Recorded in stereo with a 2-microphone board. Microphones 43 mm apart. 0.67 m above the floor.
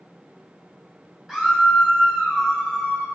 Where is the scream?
10° right (ahead or behind), 4 m; by 3.1 s 5° right (ahead or behind), 4.5 m.